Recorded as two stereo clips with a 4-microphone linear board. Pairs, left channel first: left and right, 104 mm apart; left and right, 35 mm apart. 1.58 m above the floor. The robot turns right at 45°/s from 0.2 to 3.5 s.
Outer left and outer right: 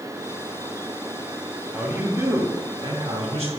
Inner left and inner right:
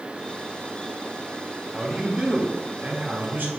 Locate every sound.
1.7 s a man speaking: 175° right, 2.5 m; by 3.5 s 95° right, 2.5 m